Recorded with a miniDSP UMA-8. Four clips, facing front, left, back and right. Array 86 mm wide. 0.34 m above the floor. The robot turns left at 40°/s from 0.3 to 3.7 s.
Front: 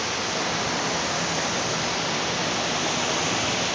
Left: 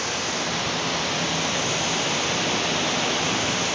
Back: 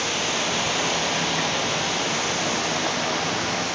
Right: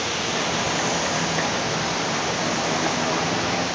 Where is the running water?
170° right, 7 m; by 3.8 s 55° left, 7 m.